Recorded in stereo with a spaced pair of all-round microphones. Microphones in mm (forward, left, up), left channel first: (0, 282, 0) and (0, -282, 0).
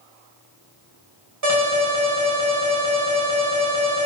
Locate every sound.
1.4 s an alarm: 30° right (ahead or behind), 1.3 m